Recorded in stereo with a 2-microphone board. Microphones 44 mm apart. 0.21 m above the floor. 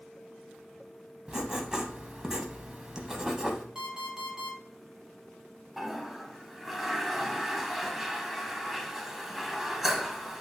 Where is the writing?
20° right (ahead or behind), 0.7 m.